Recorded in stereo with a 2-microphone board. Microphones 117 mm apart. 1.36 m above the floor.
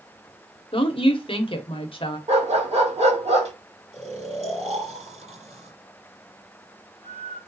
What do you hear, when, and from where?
0.7 s a woman speaking: 50° left (ahead or behind), 1.0 m
2.3 s a dog barking: 70° right (ahead or behind), 2 m
3.9 s snoring: 70° right (ahead or behind), 3 m